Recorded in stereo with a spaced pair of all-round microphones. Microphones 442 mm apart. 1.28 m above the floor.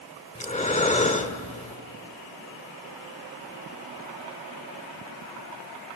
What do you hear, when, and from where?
0.3 s breathing: 15° left (ahead or behind), 1.0 m